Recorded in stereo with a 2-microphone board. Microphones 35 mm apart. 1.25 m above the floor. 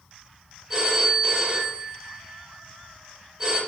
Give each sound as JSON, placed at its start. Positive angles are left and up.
{"t": 0.7, "sound": "a phone ringing", "side_deg": -25, "distance_m": 1.2}